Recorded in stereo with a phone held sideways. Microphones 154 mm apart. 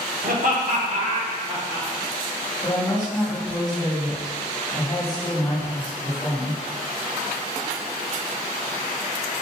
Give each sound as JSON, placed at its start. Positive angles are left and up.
{"t": 0.2, "sound": "laughter", "side_deg": -70, "distance_m": 1.0}
{"t": 2.6, "sound": "a woman speaking", "side_deg": 25, "distance_m": 1.3}